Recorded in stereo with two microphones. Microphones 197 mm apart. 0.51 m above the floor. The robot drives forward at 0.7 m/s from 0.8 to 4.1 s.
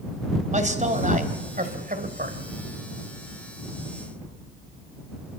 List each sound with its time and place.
0.5 s a man speaking: 40° right (ahead or behind), 3 m; by 2.4 s 50° right (ahead or behind), 2.5 m